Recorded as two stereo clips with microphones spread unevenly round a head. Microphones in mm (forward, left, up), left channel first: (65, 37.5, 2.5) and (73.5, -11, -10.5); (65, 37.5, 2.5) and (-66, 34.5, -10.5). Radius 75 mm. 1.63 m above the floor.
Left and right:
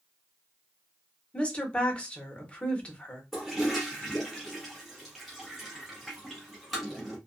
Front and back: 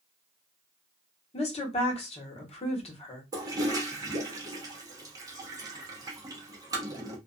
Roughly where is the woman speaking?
Ahead left.